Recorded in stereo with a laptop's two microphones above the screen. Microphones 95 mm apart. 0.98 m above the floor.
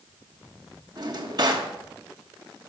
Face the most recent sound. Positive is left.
turn(degrees=-50)  # may be behind; listen again after turning